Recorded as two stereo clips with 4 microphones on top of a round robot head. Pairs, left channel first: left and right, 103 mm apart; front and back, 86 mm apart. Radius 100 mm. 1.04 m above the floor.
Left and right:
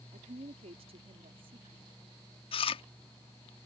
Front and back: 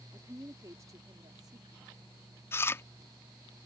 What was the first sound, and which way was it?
A woman speaking, 110° right.